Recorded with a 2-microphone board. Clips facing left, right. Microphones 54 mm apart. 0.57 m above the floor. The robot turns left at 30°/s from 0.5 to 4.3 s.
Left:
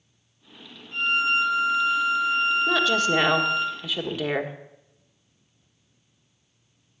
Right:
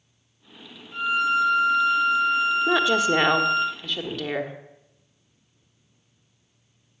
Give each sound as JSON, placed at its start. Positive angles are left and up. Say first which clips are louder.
{"t": 0.9, "sound": "a violin", "louder": "right 1 dB", "azimuth_deg": 115, "distance_m": 2.5}
{"t": 2.7, "sound": "a woman speaking", "louder": "right 1 dB", "azimuth_deg": -150, "distance_m": 1.4}